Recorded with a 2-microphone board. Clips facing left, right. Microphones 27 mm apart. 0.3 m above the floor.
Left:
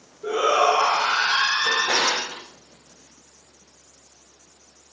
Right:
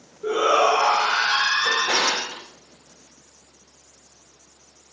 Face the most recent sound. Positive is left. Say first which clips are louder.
# even
turn(degrees=-65)  # may be behind; listen again after turning